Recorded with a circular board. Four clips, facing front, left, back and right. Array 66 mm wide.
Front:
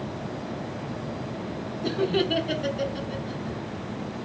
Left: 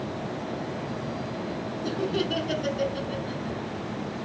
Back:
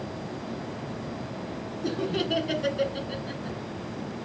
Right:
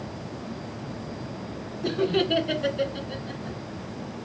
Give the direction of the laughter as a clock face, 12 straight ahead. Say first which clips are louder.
Right 4 dB, front 4 dB; 1 o'clock.